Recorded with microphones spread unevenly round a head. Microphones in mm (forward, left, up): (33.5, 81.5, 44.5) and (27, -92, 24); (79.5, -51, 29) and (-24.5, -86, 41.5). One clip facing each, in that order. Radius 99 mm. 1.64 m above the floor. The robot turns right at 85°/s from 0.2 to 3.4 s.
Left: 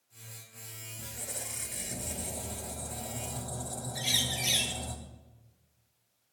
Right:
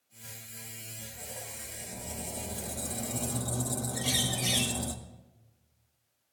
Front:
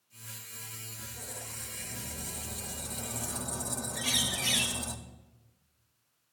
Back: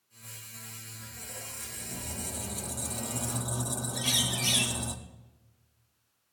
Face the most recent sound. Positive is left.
turn(degrees=165)